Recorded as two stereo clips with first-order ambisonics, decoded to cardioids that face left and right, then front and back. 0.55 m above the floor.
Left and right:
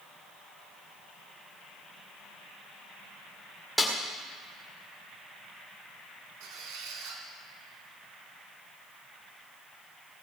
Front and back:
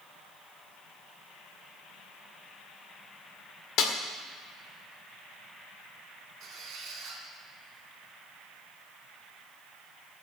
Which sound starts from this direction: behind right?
A squeak, at 6.4 s.